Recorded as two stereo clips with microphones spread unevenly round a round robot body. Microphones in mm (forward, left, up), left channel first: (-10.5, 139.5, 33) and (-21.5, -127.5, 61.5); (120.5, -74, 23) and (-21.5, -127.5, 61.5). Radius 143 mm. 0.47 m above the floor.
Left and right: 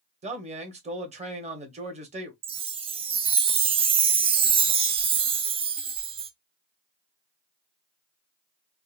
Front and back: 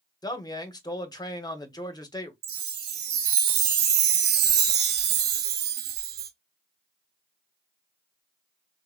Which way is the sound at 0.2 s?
25° right.